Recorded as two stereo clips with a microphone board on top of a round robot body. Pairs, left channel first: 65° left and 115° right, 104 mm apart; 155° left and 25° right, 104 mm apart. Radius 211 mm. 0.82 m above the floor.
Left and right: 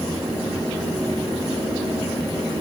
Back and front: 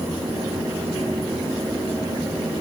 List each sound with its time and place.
Only background noise.